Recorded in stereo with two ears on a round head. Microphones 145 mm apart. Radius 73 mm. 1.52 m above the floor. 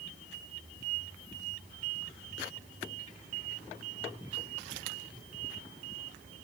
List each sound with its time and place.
Only background noise.